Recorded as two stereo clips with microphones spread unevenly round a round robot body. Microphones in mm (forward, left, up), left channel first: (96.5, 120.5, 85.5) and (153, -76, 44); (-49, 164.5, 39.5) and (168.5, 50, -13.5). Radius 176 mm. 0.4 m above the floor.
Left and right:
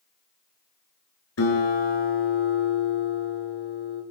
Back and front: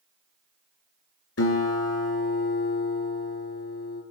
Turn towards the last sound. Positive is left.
turn(degrees=125)